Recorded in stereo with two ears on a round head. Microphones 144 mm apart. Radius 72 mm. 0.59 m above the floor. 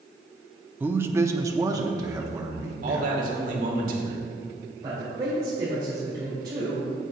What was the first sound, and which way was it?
A man speaking, 10° right (ahead or behind).